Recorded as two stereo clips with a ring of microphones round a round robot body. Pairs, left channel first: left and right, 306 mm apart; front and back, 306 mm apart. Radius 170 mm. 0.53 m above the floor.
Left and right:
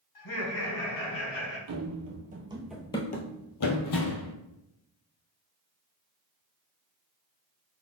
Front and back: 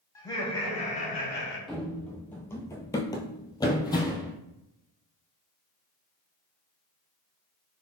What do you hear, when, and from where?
0.1 s laughter: 80° left, 1.8 m; by 1.6 s 50° left, 1.5 m
1.7 s running footsteps: 90° right, 0.7 m; by 4.3 s 75° left, 1.0 m